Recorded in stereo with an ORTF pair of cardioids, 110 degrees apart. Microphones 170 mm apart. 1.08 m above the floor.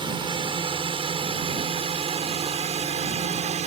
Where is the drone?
30° right; by 3.7 s 45° right.